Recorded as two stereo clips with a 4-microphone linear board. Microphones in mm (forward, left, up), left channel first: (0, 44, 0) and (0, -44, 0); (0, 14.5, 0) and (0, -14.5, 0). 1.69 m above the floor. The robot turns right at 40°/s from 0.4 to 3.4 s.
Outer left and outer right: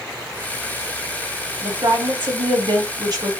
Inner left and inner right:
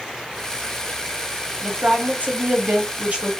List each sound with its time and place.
1.6 s a woman speaking: 115° right, 1.1 m; by 3.3 s 45° right, 1.1 m